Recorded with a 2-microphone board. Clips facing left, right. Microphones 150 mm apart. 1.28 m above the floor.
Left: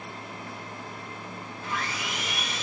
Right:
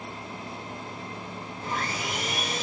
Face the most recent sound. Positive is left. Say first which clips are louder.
# right 2 dB
turn(degrees=-40)  # may be behind; listen again after turning